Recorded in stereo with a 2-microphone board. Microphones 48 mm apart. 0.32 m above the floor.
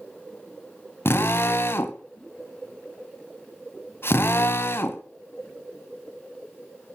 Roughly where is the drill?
Left.